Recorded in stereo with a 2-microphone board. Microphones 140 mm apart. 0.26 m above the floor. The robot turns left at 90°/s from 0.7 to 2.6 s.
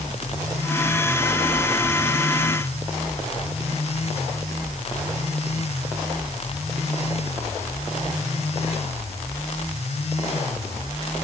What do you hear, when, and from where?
Only background noise.